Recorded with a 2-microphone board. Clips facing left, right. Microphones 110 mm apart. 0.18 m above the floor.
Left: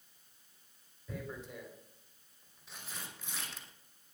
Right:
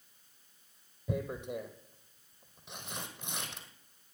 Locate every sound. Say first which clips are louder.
1.1 s tearing paper: right 8 dB; 70° right (ahead or behind), 2 m